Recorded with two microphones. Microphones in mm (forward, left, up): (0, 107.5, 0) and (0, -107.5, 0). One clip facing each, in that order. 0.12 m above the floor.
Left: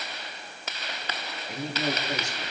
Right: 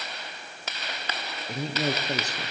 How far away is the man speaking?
About 2.5 m.